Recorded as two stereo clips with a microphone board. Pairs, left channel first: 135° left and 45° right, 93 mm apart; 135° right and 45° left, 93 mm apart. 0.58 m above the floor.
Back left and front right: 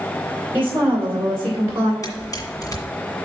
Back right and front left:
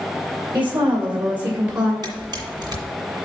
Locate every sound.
0.5 s a woman speaking: 25° left, 2.5 m; by 1.9 s 5° left, 1.6 m
2.0 s a camera shutter: 85° left, 1.9 m